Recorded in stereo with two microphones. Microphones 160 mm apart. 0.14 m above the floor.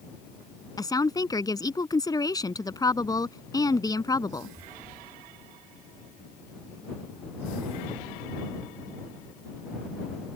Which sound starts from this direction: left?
A woman speaking, at 0.8 s.